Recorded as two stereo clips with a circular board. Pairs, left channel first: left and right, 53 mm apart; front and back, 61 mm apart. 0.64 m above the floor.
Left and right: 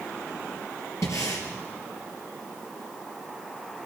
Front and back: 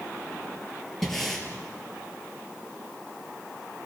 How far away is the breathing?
About 4 m.